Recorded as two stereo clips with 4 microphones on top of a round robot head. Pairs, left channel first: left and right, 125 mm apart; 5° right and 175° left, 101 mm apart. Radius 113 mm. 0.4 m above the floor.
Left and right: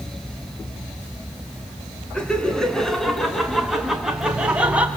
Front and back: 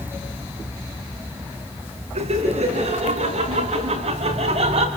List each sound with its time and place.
2.1 s laughter: 175° left, 5.5 m; by 4.9 s 170° right, 4.5 m